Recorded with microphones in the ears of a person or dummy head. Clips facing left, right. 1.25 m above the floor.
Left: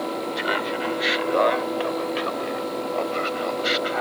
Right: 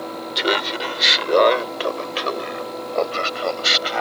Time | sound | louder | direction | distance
0.3 | laughter | right 2 dB | 50° right (ahead or behind) | ?